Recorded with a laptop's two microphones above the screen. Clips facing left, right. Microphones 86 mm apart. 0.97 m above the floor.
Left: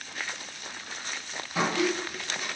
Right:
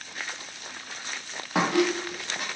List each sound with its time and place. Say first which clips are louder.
1.6 s a squeak: right 3 dB; 65° right (ahead or behind), 0.6 m